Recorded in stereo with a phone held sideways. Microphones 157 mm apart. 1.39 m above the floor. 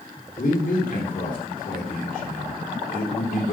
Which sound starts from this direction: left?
A man speaking, at 0.4 s.